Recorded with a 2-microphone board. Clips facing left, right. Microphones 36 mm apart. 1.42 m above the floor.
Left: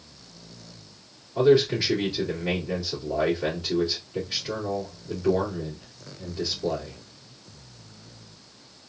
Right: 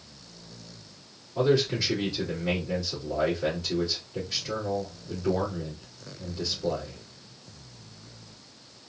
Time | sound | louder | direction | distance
1.4 | a man speaking | left 5 dB | 20° left (ahead or behind) | 2.5 m